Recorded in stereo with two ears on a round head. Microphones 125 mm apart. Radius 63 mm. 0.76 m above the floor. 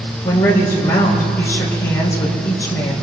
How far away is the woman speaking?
About 4 m.